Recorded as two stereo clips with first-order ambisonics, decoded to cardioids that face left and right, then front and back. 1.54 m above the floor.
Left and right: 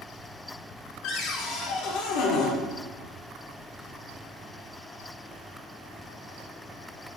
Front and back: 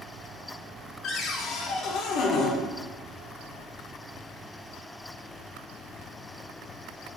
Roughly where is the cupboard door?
Ahead left.